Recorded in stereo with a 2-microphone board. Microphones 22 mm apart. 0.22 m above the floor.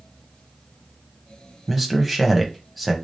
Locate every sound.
1.7 s a man speaking: 10° right (ahead or behind), 1.0 m